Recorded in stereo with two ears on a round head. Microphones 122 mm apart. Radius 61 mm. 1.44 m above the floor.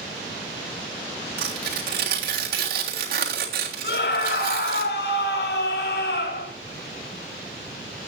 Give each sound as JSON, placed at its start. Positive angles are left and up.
{"t": 1.4, "sound": "tearing paper", "side_deg": -80, "distance_m": 3.5}
{"t": 3.8, "sound": "a scream", "side_deg": 80, "distance_m": 4.0}